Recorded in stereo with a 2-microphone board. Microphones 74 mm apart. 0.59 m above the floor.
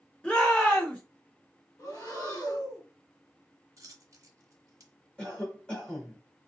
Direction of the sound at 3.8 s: 55° right (ahead or behind).